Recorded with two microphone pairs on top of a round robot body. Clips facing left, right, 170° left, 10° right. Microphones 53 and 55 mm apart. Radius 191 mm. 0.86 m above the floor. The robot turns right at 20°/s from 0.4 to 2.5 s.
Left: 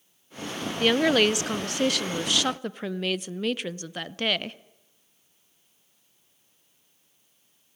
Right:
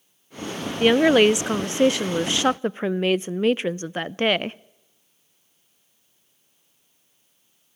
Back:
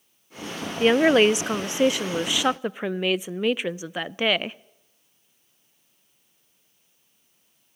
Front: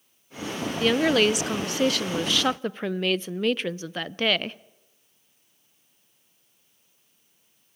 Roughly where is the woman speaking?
Behind right.